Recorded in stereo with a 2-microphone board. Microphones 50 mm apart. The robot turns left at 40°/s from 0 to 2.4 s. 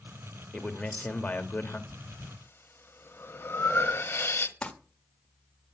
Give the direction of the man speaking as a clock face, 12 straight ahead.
7 o'clock.